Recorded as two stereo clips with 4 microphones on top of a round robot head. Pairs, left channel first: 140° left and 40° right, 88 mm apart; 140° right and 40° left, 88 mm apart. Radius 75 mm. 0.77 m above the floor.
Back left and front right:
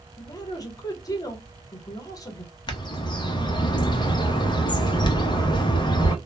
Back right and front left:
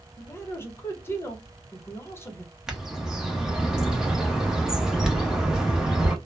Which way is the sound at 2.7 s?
125° left.